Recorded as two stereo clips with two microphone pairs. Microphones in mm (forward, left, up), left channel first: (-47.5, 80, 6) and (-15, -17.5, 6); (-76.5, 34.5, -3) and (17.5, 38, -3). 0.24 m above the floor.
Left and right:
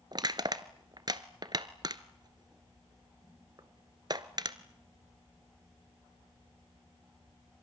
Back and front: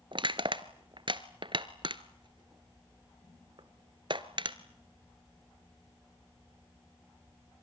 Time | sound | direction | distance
0.1 | crushing | 25° right | 1.0 m